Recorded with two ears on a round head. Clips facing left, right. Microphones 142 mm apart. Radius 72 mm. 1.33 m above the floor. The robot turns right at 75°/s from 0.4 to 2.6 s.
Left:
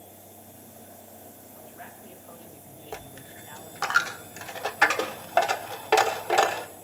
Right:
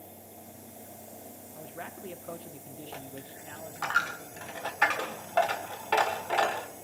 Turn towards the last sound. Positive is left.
turn(degrees=55)  # may be behind; listen again after turning